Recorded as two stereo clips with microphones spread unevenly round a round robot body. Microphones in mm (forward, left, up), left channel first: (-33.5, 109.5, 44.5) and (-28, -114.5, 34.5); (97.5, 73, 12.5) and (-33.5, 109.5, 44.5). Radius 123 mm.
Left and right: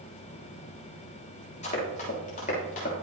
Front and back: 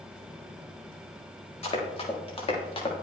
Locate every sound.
1.6 s running footsteps: 30° left, 6.5 m; by 2.9 s 35° left, 5.5 m